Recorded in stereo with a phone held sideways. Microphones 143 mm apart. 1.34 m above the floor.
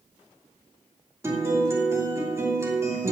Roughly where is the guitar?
Centre.